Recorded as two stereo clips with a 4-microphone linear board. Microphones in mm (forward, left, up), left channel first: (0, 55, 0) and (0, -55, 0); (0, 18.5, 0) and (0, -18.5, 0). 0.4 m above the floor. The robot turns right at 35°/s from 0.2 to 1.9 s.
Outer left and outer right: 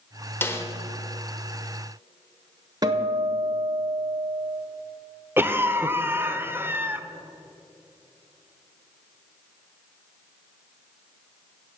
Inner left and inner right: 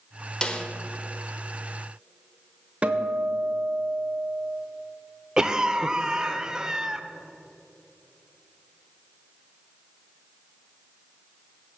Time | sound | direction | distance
0.4 | a snare drum | 20° left (ahead or behind) | 1.1 m
2.8 | a guitar | 35° right (ahead or behind) | 1.0 m
5.4 | a cough | 20° right (ahead or behind) | 0.8 m